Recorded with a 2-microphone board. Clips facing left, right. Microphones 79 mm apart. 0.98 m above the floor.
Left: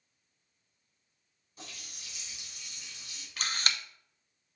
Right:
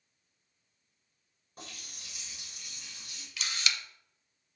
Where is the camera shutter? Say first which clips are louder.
Left 2 dB; 45° left (ahead or behind), 0.5 m.